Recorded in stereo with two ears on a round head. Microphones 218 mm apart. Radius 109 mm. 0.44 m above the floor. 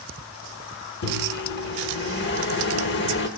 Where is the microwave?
45° left (ahead or behind), 1.0 m.